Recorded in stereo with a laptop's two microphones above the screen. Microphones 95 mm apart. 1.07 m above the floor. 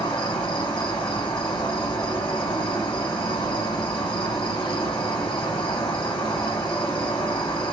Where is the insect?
55° left (ahead or behind), 0.9 m.